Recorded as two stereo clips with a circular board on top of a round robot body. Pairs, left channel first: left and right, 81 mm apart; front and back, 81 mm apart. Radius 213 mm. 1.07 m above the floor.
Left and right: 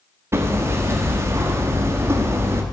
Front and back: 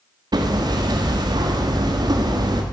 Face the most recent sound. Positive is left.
turn(degrees=-145)